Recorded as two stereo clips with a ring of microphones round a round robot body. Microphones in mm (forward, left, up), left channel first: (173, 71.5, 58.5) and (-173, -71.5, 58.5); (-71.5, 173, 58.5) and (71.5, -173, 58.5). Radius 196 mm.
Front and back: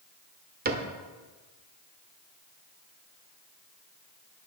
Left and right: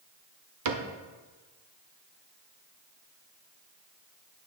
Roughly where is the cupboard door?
Right.